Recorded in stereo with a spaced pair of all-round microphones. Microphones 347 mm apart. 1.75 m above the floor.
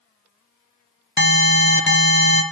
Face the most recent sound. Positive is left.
turn(degrees=35)  # may be behind; listen again after turning